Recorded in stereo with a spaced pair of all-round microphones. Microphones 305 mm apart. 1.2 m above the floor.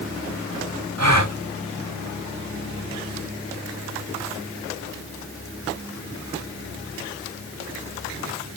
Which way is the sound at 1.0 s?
60° right (ahead or behind).